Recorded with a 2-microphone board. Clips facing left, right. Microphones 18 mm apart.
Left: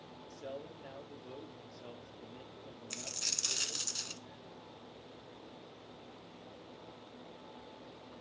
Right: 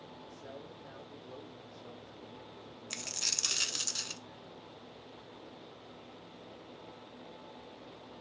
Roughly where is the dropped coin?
Right.